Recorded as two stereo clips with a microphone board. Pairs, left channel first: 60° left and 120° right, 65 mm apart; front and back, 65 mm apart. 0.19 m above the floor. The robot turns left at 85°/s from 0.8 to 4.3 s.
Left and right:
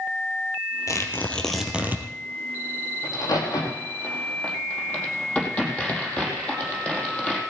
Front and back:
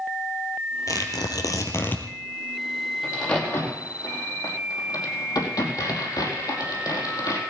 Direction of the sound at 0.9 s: 30° left.